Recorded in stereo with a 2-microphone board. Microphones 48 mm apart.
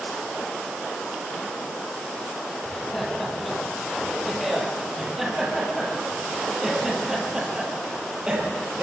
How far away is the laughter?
About 8.5 m.